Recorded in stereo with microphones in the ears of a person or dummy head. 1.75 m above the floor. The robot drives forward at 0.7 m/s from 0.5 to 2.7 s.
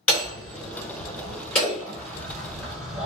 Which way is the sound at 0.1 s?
10° left (ahead or behind).